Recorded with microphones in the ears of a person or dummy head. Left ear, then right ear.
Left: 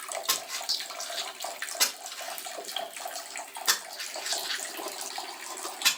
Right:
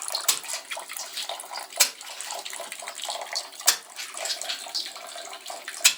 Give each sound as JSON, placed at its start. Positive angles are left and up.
{"t": 0.3, "sound": "a splash", "side_deg": -65, "distance_m": 3.0}